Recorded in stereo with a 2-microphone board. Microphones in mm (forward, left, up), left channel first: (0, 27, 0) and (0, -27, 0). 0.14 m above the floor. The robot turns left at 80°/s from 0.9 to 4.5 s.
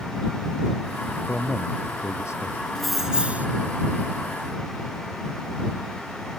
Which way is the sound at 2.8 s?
10° left.